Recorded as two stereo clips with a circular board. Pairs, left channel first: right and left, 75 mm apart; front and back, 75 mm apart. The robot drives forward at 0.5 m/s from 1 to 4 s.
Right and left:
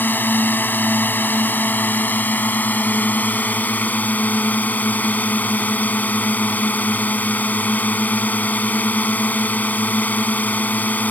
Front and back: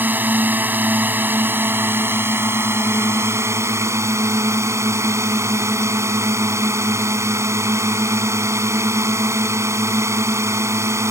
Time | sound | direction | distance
0.0 | a drone | 135° right | ?